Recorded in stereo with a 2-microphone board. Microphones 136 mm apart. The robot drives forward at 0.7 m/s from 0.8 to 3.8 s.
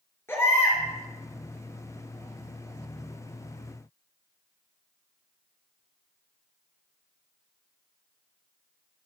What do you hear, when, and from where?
0.3 s a baby crying: 20° left (ahead or behind), 4 m